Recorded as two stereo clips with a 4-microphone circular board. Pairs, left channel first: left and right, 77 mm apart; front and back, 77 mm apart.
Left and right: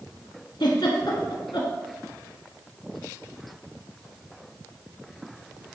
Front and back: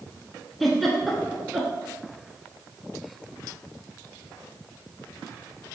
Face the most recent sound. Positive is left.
turn(degrees=85)